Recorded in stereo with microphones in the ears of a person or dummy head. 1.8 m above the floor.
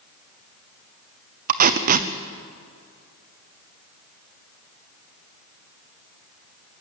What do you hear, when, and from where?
1.5 s tape being pulled: 45° right (ahead or behind), 0.9 m